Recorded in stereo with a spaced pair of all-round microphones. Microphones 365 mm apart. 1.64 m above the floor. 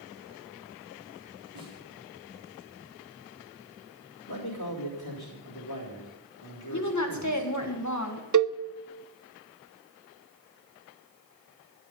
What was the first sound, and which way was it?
A snare drum, 70° right (ahead or behind).